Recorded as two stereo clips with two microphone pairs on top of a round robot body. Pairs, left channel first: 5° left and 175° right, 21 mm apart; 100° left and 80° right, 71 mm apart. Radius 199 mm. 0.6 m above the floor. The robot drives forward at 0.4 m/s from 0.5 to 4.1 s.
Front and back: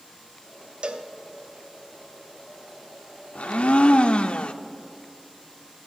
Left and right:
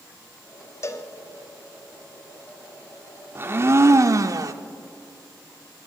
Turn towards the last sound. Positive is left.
turn(degrees=-35)